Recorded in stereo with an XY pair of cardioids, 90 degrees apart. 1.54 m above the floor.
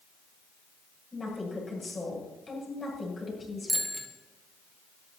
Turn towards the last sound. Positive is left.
turn(degrees=-15)